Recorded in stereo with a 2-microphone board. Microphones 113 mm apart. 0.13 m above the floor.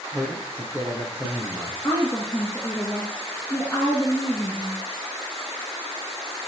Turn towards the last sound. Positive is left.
turn(degrees=35)  # may be behind; listen again after turning